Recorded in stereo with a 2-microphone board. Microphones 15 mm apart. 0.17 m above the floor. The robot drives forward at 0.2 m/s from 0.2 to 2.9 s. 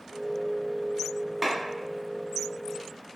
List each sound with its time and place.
1.4 s a clap: 20° right (ahead or behind), 0.9 m